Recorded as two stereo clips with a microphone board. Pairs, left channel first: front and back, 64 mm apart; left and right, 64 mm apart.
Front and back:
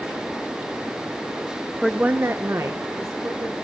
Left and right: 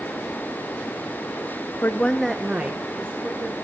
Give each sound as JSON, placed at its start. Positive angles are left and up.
{"t": 1.8, "sound": "a woman speaking", "azimuth_deg": 90, "distance_m": 0.7}